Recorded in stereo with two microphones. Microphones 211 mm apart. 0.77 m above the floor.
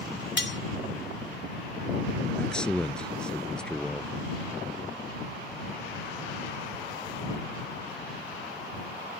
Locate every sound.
0.4 s cutlery clinking: 60° left (ahead or behind)
2.4 s a man speaking: 5° left (ahead or behind)